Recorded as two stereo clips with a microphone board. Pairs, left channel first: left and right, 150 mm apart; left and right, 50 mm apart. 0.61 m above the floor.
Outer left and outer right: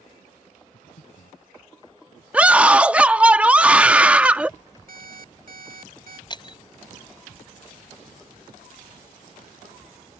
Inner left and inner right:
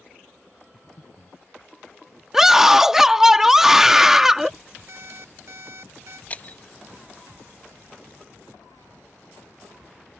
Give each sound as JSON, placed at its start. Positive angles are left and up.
{"t": 0.7, "sound": "breathing", "side_deg": 55}
{"t": 2.3, "sound": "a scream", "side_deg": -10}
{"t": 4.9, "sound": "an alarm clock", "side_deg": -70}
{"t": 6.3, "sound": "breaking glass", "side_deg": 30}